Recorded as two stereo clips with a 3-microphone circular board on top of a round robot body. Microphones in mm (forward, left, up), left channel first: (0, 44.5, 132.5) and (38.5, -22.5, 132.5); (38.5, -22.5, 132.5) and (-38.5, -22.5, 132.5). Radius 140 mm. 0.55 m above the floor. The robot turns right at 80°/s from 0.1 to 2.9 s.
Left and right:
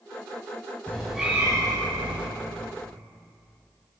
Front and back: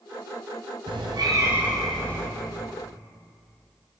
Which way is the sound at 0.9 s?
170° right.